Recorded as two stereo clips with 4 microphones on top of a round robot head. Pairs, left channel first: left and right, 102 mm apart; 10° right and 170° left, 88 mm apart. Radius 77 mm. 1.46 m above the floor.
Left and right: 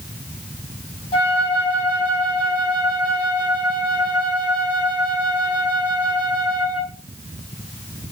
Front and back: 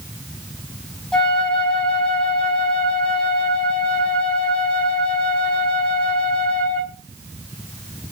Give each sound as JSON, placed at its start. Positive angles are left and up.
{"t": 1.1, "sound": "a flute", "azimuth_deg": 65, "distance_m": 2.0}